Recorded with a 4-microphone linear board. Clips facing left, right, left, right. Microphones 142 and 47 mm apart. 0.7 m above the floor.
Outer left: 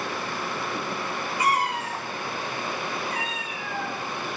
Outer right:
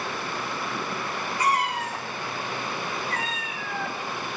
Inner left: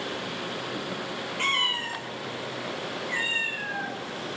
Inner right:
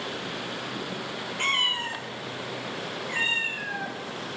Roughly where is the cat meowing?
Centre.